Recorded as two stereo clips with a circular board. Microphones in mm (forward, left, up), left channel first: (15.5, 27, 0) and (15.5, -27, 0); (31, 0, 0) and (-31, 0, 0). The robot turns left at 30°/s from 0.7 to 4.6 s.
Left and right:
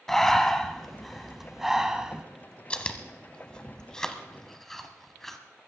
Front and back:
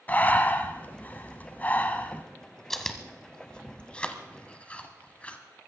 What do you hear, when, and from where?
0.1 s breathing: 15° left, 1.0 m; by 2.2 s 30° right, 1.0 m
2.7 s chewing: 75° left, 1.2 m; by 5.4 s 15° left, 1.2 m